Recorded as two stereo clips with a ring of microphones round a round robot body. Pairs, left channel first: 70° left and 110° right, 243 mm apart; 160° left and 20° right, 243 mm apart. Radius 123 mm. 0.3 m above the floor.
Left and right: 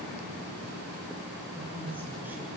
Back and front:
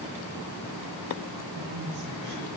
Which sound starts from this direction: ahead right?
A woman speaking, at 1.6 s.